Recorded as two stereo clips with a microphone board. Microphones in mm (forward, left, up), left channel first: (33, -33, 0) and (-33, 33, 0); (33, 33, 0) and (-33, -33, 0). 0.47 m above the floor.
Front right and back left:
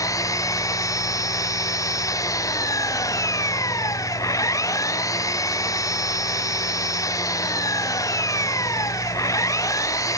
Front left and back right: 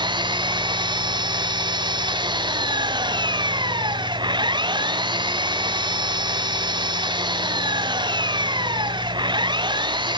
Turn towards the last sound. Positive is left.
turn(degrees=-100)